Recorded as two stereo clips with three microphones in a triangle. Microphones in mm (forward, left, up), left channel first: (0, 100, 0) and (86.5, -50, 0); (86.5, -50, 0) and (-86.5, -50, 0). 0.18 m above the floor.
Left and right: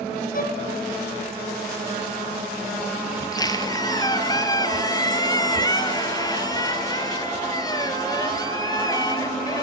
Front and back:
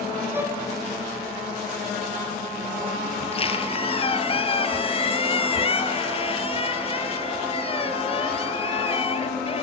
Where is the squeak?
55° left, 1.8 m.